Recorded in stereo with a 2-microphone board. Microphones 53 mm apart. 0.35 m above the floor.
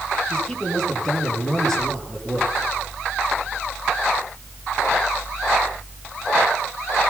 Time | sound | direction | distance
0.3 | a man speaking | 10° left (ahead or behind) | 8 m